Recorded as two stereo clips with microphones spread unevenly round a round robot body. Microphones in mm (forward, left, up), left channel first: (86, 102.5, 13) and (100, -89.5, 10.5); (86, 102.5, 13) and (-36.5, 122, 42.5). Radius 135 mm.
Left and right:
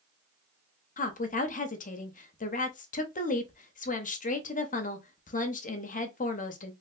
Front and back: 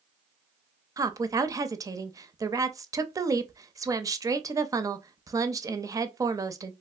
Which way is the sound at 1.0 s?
100° left.